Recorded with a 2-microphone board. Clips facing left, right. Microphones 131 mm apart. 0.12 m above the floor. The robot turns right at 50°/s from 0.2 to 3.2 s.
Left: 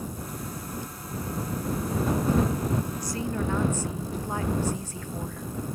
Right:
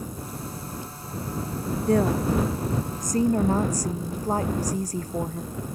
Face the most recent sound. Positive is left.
turn(degrees=-40)